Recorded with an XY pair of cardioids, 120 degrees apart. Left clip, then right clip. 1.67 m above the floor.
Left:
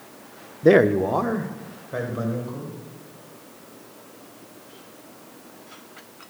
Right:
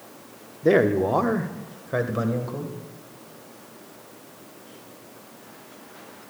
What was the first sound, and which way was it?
A man speaking, 30° left.